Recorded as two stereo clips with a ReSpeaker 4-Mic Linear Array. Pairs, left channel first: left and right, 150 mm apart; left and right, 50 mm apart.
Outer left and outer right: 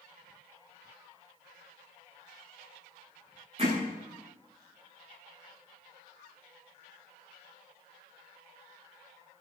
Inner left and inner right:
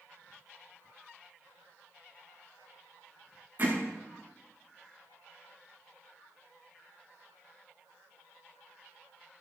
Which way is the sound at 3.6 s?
40° right (ahead or behind).